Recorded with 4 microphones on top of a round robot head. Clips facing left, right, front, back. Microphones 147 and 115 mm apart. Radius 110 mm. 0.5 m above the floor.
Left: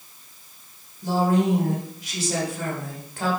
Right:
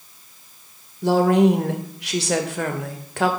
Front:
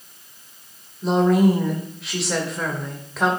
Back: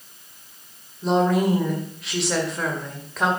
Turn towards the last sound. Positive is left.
turn(degrees=-95)